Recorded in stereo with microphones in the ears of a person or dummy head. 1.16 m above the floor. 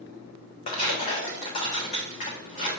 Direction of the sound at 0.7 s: 35° left (ahead or behind).